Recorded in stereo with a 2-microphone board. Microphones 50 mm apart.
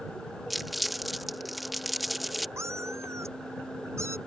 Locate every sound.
0.5 s crumpling: centre (ahead or behind)
2.6 s a cat meowing: 75° right (ahead or behind)